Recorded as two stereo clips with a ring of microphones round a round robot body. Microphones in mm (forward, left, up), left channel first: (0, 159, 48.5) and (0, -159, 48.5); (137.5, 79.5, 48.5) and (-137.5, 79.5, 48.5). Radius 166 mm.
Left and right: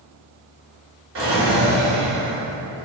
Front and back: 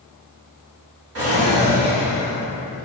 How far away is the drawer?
About 1.1 m.